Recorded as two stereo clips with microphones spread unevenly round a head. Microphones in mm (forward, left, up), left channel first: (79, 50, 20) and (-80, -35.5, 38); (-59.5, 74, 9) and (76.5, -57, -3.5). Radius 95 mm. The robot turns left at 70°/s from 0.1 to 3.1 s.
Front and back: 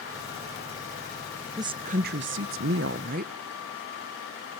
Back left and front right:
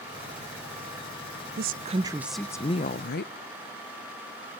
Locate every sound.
1.6 s a woman speaking: 80° right, 0.6 m; by 3.3 s 170° left, 0.6 m